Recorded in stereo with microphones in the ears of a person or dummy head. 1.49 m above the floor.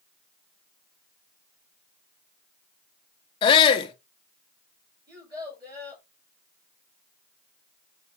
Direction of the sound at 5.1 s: 20° right (ahead or behind).